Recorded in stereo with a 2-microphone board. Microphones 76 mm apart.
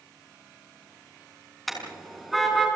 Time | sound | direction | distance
1.7 | a car horn | centre (ahead or behind) | 5.5 m